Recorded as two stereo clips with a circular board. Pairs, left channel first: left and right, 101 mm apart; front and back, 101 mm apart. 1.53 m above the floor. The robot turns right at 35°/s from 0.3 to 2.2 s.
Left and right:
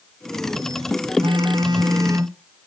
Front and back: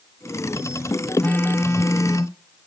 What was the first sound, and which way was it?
A phone buzzing, 75° right.